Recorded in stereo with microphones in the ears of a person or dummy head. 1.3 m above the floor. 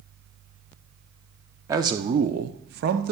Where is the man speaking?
15° right (ahead or behind), 0.7 m; by 3.1 s 50° right (ahead or behind), 0.7 m.